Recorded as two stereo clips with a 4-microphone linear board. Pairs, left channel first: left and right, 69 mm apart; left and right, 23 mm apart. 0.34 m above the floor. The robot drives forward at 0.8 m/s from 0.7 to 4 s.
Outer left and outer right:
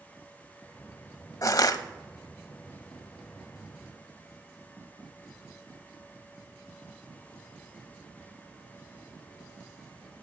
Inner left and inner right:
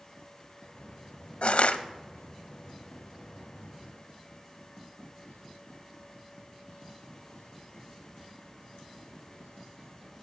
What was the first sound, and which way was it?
Crushing, 55° left (ahead or behind).